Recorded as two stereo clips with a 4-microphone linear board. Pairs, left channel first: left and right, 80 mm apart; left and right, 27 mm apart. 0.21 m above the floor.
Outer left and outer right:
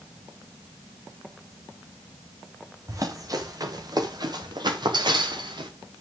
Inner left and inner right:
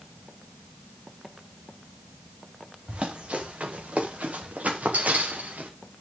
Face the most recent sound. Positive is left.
turn(degrees=-70)  # may be behind; listen again after turning